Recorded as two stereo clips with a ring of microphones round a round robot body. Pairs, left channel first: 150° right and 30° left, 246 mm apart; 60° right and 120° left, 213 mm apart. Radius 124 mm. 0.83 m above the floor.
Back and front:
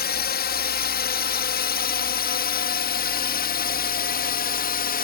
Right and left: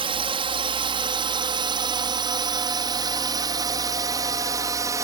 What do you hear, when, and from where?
0.0 s a drone: straight behind; by 5.0 s 175° right